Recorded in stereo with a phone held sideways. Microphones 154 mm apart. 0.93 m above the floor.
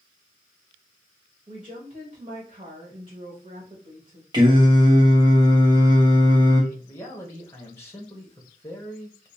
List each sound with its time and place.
1.5 s a woman speaking: 40° right (ahead or behind), 1.6 m
4.3 s singing: 25° right (ahead or behind), 1.2 m
6.7 s a man speaking: 15° left (ahead or behind), 1.1 m